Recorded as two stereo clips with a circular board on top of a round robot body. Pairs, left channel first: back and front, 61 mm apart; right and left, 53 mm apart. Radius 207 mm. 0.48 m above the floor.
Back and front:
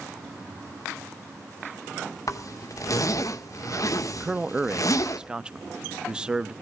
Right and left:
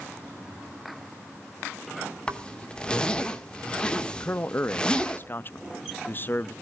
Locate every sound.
2.3 s a zipper: 160° right, 2.0 m
4.2 s a man speaking: 70° right, 0.8 m